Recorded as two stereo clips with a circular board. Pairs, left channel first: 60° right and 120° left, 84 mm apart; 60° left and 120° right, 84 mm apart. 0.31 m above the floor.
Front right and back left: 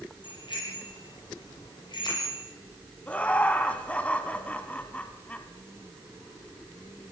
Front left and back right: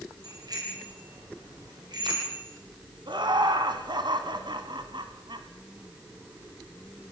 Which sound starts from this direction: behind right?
Laughter, at 3.1 s.